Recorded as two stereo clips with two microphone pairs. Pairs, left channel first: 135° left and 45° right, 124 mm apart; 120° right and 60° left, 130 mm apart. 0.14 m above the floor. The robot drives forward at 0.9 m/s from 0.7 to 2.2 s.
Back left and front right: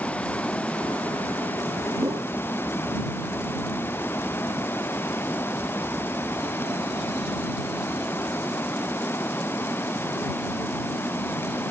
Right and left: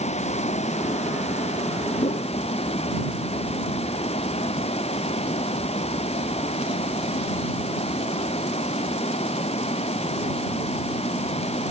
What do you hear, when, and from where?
0.0 s running water: 150° right; by 11.7 s 155° right
2.0 s a whoosh: 100° right; by 2.3 s 105° right